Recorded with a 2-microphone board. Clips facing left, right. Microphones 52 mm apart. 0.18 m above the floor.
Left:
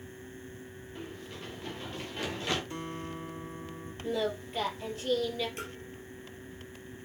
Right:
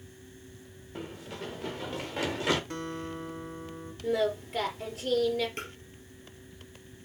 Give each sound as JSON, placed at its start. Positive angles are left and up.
{"t": 0.9, "sound": "running footsteps", "side_deg": -70, "distance_m": 2.5}
{"t": 2.7, "sound": "a guitar", "side_deg": -55, "distance_m": 2.5}
{"t": 4.0, "sound": "singing", "side_deg": -65, "distance_m": 3.5}
{"t": 5.6, "sound": "tapping", "side_deg": -40, "distance_m": 3.0}